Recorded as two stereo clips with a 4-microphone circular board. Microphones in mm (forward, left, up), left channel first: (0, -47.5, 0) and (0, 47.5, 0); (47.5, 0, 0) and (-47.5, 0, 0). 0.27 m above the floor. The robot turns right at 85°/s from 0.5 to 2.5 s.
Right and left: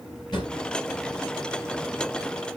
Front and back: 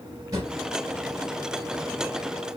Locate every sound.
0.3 s a drawer: 130° right, 2.5 m